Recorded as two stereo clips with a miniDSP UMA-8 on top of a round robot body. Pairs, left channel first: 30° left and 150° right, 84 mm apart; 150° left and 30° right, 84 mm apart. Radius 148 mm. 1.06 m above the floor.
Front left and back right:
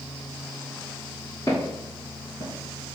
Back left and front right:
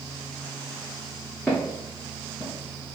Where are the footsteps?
70° left, 1.2 m; by 3.0 s 75° right, 1.1 m.